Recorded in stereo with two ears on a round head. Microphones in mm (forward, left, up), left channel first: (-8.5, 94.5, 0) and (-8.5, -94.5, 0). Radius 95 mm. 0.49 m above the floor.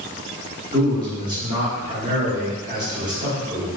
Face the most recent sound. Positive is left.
turn(degrees=-20)  # may be behind; listen again after turning